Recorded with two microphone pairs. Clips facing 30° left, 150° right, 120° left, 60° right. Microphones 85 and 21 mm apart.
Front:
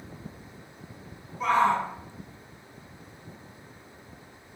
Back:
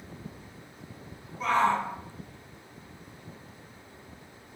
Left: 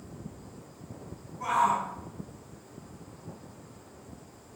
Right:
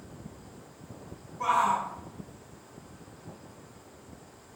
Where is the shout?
55° right, 1.1 m.